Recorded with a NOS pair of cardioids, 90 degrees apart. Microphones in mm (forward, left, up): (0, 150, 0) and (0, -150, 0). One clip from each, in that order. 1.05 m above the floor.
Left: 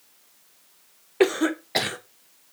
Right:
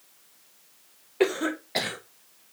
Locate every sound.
1.2 s a cough: 20° left, 0.6 m